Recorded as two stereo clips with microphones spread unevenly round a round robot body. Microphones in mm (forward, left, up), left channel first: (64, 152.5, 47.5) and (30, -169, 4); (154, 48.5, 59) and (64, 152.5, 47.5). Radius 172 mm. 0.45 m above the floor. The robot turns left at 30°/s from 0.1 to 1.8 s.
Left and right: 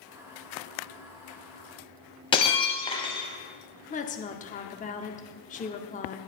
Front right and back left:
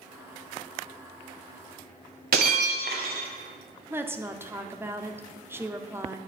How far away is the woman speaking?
About 0.7 m.